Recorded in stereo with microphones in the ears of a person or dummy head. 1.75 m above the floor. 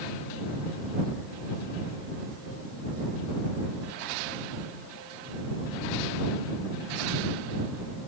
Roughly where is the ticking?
No ticking in this recording.